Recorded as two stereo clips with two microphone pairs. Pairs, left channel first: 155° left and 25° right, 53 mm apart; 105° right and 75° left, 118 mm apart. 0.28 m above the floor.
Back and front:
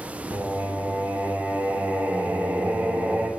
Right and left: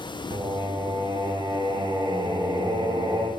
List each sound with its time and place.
0.3 s singing: 30° left, 0.9 m